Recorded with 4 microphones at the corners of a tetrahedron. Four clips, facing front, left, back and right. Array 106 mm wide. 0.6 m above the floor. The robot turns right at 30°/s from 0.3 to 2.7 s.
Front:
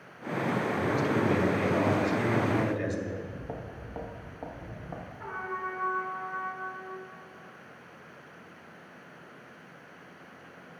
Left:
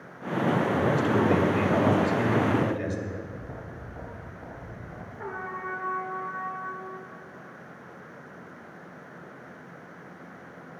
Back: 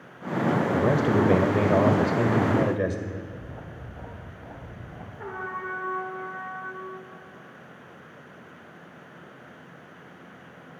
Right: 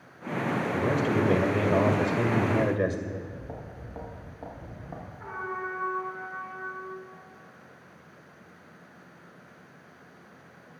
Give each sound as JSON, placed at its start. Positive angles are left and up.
{"t": 0.7, "sound": "a man speaking", "azimuth_deg": 170, "distance_m": 1.9}
{"t": 3.1, "sound": "footsteps", "azimuth_deg": -10, "distance_m": 5.0}
{"t": 5.2, "sound": "a trumpet", "azimuth_deg": 130, "distance_m": 3.5}